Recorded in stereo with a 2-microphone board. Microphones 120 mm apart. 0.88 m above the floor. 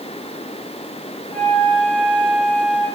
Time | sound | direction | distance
1.3 | a flute | 15° left (ahead or behind) | 8 m